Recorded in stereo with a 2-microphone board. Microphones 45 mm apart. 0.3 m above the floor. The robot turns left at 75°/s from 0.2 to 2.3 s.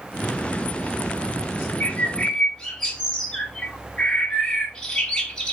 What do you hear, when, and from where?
1.8 s a bird: 50° left, 1.1 m; by 5.5 s 10° left, 1.1 m